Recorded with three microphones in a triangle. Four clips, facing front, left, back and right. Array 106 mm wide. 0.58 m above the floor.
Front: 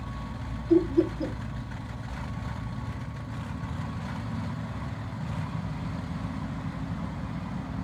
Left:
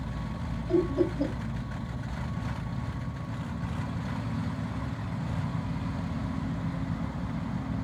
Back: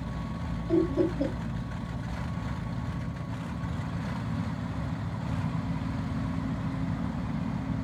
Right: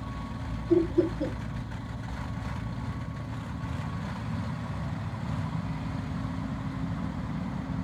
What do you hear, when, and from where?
0.7 s laughter: 135° left, 3.5 m